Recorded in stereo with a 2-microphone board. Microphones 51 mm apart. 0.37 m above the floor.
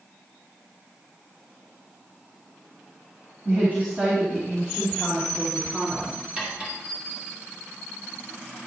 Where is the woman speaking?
35° right (ahead or behind), 4 m; by 6.2 s 15° right (ahead or behind), 3 m.